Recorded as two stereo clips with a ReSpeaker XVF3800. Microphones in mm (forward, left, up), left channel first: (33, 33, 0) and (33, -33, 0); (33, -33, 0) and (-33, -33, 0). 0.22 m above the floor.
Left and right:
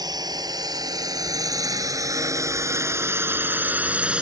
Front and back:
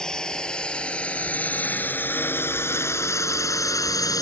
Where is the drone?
80° right; by 4.2 s 15° right.